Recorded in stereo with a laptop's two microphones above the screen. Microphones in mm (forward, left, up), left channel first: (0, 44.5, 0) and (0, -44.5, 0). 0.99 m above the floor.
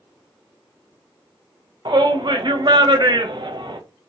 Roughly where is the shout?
Right.